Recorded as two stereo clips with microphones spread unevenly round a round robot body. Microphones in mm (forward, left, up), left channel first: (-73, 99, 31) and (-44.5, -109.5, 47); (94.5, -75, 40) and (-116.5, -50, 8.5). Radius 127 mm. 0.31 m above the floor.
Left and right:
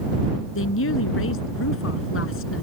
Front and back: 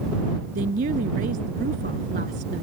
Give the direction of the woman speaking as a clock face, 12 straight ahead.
8 o'clock.